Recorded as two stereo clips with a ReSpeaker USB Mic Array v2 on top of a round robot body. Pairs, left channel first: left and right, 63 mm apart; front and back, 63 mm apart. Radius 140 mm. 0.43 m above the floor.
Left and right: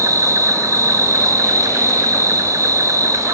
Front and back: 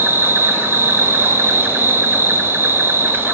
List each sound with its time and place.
0.0 s an insect: 125° right, 2 m